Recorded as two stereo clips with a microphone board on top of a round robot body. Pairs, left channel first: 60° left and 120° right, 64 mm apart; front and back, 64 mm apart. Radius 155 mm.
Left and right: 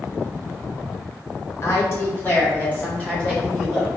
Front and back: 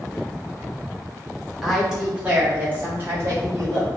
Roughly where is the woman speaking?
Left.